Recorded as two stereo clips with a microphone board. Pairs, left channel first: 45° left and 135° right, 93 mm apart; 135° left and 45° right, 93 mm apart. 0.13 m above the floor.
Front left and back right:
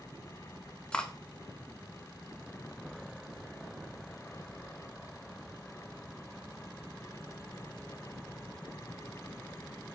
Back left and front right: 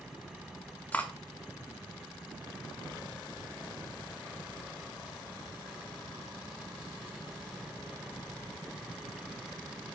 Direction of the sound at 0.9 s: 105° left.